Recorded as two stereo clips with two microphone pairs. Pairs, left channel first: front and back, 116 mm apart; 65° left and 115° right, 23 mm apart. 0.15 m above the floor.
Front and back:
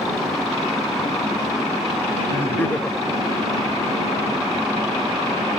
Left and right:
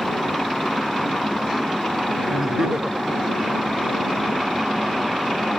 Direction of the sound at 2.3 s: 60° right.